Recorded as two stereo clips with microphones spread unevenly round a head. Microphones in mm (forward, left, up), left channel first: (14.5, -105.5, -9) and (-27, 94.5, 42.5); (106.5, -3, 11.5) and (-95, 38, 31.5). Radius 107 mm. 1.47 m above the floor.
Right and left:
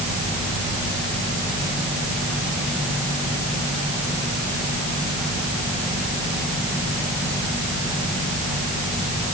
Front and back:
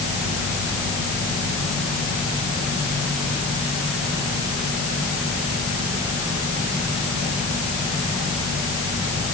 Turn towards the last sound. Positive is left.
No sound to turn to.